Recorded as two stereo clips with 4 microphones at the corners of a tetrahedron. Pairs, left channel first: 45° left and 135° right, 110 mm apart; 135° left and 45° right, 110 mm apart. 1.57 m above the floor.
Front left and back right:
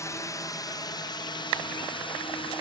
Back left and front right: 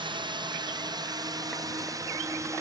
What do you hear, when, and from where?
0.0 s a drone: 10° right; by 2.6 s 15° left